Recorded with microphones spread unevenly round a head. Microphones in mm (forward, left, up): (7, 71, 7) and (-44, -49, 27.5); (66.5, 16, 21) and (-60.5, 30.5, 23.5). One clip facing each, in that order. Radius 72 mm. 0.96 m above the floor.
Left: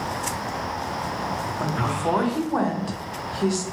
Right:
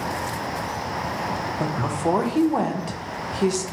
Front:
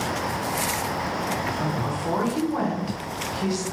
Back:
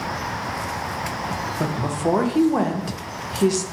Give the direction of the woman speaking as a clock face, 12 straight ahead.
6 o'clock.